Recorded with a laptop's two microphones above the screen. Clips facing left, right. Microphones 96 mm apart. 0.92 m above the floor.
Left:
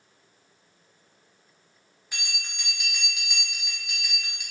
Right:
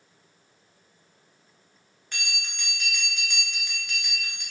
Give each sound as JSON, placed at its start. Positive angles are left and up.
{"t": 2.1, "sound": "a bell", "side_deg": 10, "distance_m": 0.7}